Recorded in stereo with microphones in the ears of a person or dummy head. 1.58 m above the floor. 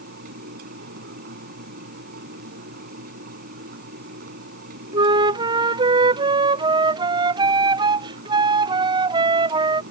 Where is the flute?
30° right (ahead or behind).